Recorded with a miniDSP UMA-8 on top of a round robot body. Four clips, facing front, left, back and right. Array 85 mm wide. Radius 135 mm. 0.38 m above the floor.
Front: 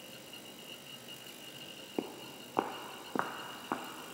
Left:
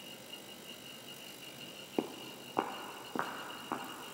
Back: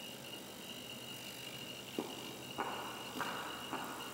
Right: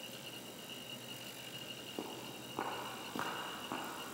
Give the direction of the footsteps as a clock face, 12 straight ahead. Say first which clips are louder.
Left 8 dB, front 4 dB; 10 o'clock.